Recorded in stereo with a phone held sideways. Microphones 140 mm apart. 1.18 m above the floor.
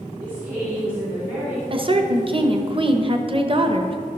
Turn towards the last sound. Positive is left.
turn(degrees=-40)  # may be behind; listen again after turning